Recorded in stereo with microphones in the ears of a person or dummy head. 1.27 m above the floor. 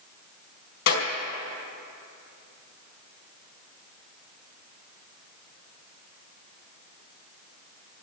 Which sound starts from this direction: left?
A clap, at 0.9 s.